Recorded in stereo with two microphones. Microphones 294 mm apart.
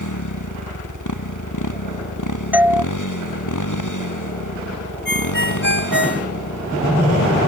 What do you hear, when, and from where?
0.0 s a motorcycle: 85° left; by 7.5 s 80° left
2.5 s a doorbell: 5° right (ahead or behind)
5.0 s a ringtone: 40° left (ahead or behind)